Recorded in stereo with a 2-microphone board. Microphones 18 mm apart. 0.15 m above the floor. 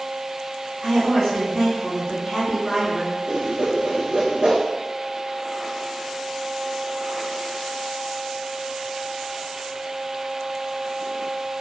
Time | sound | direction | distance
0.8 | a woman speaking | 25° right (ahead or behind) | 1.6 m
3.3 | a whoosh | 55° right (ahead or behind) | 1.1 m